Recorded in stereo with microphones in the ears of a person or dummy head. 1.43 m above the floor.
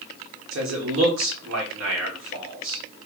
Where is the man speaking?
75° right (ahead or behind), 1.4 m.